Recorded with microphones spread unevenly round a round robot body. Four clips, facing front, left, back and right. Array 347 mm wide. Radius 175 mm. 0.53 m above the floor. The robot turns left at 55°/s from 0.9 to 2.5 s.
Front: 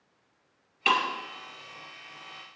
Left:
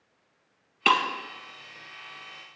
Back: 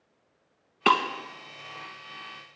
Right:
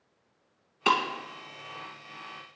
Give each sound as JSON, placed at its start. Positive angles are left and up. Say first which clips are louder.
{"t": 0.8, "sound": "breaking glass", "louder": "left 2 dB, back 4 dB", "azimuth_deg": 155, "distance_m": 1.5}